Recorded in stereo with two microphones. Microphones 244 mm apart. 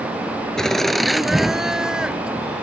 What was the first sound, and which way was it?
Laughter, centre (ahead or behind).